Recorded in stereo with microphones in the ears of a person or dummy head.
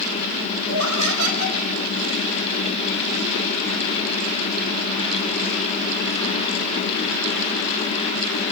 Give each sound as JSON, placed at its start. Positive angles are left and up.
{"t": 0.7, "sound": "laughter", "side_deg": -80, "distance_m": 5.0}